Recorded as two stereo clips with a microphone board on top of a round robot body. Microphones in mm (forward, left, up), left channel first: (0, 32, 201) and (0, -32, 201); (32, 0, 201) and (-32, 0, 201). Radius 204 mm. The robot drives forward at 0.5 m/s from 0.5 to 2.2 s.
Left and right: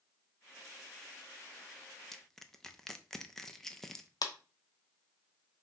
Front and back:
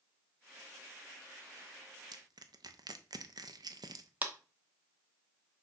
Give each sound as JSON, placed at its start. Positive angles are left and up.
{"t": 2.1, "sound": "crushing", "azimuth_deg": 175, "distance_m": 0.8}
{"t": 4.2, "sound": "a clap", "azimuth_deg": 115, "distance_m": 1.1}